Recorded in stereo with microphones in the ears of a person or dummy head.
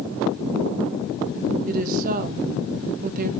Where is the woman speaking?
40° right (ahead or behind), 0.7 m.